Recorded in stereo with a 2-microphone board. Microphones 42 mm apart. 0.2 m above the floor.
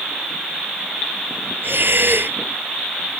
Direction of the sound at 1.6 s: 60° right (ahead or behind).